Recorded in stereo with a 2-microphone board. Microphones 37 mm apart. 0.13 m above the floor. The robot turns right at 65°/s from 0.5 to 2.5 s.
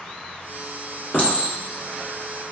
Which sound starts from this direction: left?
A clink, at 1.1 s.